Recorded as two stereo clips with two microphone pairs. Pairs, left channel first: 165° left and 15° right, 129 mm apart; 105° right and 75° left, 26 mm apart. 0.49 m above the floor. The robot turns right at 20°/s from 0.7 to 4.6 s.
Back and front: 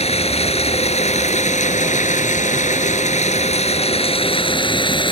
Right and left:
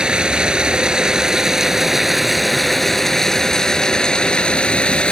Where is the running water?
135° left; by 5.1 s 150° right.